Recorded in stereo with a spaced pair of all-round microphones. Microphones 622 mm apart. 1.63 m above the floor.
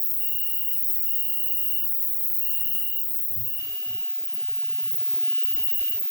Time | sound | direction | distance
0.0 | an insect | 80° left | 3 m